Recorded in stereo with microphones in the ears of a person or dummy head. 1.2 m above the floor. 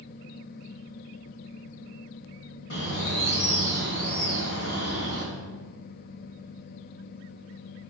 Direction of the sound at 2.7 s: 70° left (ahead or behind).